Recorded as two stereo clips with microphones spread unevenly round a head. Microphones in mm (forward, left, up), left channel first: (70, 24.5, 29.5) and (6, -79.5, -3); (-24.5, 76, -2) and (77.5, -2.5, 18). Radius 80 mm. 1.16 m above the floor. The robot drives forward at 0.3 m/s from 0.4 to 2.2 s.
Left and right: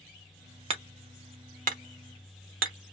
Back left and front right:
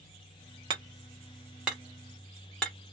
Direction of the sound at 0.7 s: 80° right.